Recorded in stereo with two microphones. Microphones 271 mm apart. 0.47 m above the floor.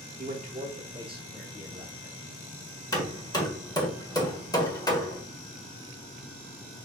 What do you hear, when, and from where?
0.2 s a man speaking: 30° right (ahead or behind), 1.2 m; by 2.2 s 5° right (ahead or behind), 1.7 m
2.9 s hammering: 15° left (ahead or behind), 1.2 m